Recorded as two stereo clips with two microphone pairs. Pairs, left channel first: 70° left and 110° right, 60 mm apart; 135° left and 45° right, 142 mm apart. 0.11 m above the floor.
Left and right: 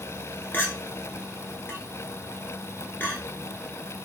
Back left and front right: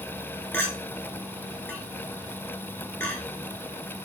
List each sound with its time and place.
0.5 s a clink: 85° left, 0.8 m